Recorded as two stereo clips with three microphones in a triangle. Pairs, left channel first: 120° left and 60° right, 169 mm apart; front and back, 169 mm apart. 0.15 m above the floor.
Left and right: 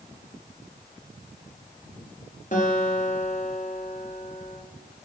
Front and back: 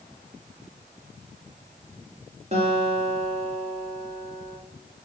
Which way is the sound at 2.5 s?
140° left.